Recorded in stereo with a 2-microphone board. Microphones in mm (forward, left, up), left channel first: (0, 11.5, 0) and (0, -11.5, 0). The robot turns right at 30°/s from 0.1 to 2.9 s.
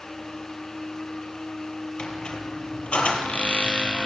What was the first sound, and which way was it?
A squeak, 35° left (ahead or behind).